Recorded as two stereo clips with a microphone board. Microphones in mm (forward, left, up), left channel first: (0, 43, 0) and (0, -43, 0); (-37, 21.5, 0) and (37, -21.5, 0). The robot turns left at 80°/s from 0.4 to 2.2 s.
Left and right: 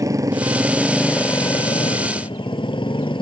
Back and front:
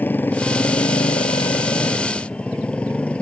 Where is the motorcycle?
140° right; by 3.2 s 75° left.